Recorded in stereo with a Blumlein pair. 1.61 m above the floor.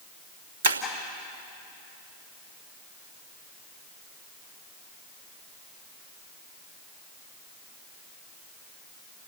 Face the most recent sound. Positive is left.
turn(degrees=-65)